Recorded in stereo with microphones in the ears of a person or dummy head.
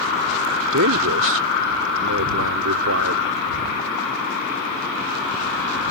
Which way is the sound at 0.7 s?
75° right (ahead or behind).